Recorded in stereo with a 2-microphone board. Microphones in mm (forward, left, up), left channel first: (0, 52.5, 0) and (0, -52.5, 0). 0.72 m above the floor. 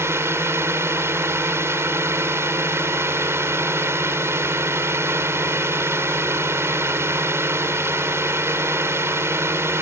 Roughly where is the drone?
Right.